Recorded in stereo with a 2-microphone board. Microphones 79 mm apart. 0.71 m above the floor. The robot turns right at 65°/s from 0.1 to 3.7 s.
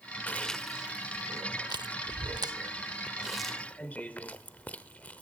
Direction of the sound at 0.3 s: 20° left (ahead or behind).